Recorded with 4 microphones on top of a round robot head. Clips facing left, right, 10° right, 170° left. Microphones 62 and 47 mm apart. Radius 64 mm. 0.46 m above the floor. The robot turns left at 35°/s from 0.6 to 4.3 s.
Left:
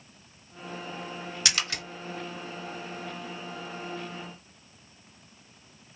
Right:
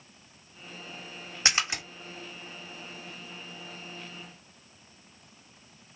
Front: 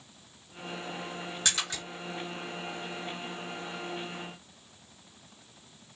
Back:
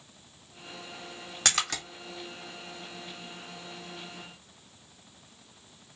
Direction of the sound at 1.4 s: 150° right.